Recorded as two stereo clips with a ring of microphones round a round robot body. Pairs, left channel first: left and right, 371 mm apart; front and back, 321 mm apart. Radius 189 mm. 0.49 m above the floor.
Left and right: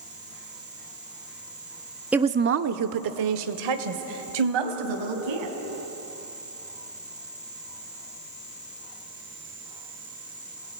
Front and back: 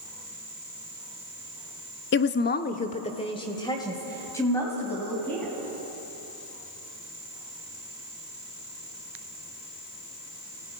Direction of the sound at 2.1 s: 5° right.